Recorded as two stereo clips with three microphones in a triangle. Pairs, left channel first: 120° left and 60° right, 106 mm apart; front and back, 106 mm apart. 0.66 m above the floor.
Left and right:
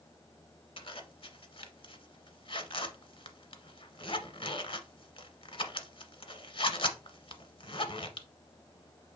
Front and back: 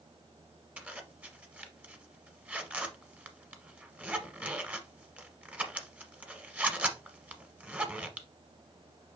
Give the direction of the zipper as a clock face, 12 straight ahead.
8 o'clock.